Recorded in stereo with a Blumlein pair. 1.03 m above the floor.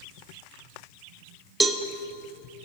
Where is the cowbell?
10° right, 0.7 m.